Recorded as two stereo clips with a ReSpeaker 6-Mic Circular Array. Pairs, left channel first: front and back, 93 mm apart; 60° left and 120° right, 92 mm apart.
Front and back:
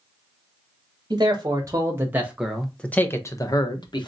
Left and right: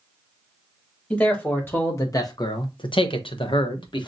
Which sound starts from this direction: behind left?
A man speaking, at 1.1 s.